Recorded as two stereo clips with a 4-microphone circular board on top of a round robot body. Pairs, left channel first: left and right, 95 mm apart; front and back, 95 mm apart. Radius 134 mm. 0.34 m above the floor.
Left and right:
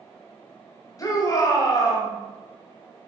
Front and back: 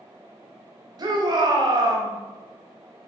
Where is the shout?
140° left, 2.5 m.